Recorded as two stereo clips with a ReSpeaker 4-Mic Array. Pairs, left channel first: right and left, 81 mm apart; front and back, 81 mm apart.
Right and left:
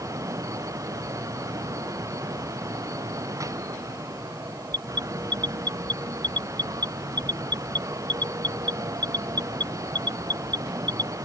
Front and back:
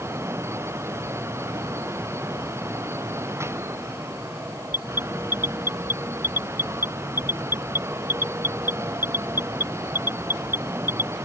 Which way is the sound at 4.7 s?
115° left.